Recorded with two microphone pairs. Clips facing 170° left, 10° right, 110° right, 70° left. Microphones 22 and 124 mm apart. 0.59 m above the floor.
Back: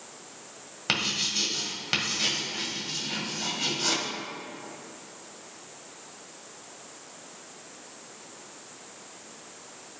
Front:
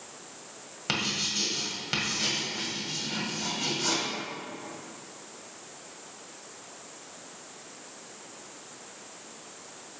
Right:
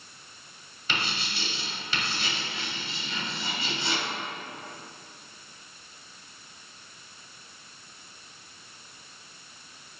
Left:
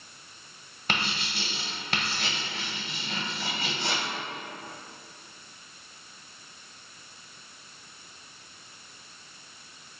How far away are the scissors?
I don't hear scissors.